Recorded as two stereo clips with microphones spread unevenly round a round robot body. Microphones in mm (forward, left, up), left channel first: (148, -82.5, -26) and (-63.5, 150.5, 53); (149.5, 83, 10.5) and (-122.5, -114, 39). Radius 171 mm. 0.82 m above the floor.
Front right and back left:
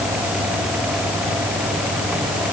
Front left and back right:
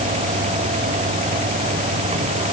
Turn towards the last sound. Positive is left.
No sound to turn to.